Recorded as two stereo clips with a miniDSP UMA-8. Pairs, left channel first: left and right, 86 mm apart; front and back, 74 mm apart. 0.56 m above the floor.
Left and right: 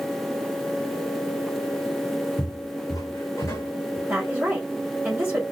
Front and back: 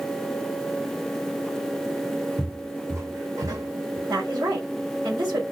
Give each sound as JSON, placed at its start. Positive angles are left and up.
{"t": 2.4, "sound": "footsteps", "azimuth_deg": 110, "distance_m": 1.3}
{"t": 4.1, "sound": "a woman speaking", "azimuth_deg": -160, "distance_m": 2.5}